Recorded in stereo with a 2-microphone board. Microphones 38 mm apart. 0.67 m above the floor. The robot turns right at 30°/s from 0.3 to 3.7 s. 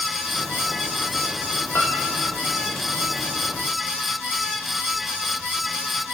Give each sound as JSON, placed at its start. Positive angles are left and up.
{"t": 1.8, "sound": "a piano", "side_deg": 75, "distance_m": 5.5}